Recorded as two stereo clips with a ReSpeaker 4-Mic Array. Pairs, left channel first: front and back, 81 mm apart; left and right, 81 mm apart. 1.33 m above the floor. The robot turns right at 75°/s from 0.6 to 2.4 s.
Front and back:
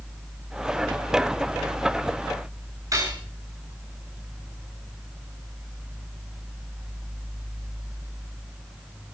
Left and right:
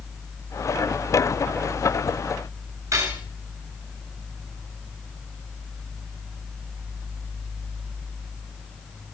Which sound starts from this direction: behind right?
Cutlery clinking, at 2.9 s.